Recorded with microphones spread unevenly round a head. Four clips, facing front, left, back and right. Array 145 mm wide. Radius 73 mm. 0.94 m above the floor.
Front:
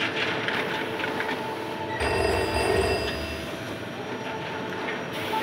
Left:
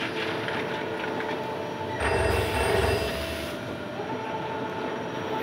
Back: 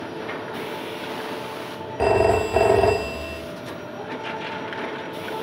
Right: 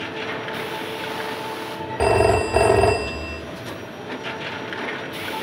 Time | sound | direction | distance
2.0 | a phone ringing | 130° right | 1.4 m